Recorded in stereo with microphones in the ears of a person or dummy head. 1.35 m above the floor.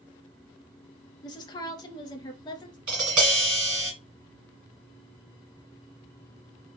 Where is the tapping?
20° right (ahead or behind), 1.4 m.